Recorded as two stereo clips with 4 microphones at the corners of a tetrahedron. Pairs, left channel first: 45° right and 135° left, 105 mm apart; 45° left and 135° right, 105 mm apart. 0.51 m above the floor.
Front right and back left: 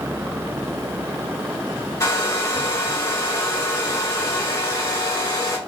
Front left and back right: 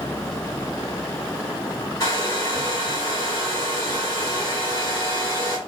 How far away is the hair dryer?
About 1.9 m.